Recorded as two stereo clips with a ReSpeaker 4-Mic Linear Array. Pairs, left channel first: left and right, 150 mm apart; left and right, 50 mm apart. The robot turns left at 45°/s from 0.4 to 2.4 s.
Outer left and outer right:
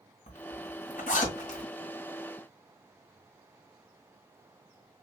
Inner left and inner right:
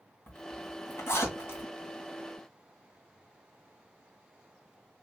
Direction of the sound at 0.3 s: 65° left (ahead or behind).